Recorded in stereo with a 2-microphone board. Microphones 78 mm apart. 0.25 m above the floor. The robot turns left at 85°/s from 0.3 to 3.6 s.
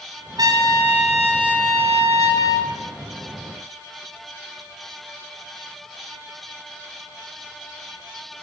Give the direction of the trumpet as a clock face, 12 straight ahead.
4 o'clock.